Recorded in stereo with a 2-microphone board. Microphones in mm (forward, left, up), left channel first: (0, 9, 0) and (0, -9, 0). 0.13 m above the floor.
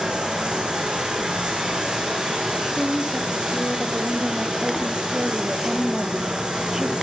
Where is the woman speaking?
30° right (ahead or behind), 2.5 m.